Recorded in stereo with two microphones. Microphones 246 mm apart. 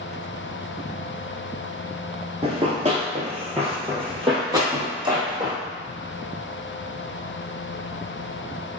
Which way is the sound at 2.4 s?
25° right (ahead or behind).